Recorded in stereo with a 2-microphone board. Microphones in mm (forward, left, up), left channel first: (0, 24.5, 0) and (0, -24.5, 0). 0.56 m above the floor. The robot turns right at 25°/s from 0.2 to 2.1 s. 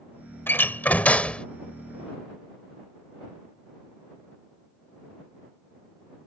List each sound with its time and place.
0.5 s a door slam: 45° left (ahead or behind); by 1.5 s 20° left (ahead or behind)